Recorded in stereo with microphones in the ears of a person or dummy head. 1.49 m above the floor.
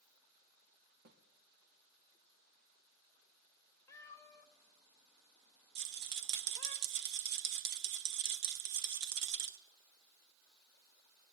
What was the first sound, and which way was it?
A snare drum, 70° right (ahead or behind).